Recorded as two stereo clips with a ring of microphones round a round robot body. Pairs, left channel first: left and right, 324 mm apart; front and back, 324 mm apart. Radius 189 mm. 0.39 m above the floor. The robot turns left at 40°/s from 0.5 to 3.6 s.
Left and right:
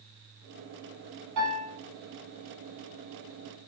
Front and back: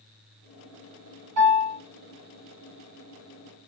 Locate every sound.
1.4 s a piano: 135° right, 1.9 m; by 1.8 s 150° right, 1.9 m